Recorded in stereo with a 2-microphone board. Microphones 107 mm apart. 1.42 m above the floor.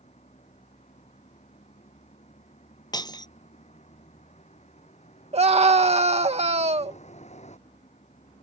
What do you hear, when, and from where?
0.0 s a vehicle: 85° left
2.9 s breaking glass: 35° left (ahead or behind)
5.3 s a scream: 70° right (ahead or behind)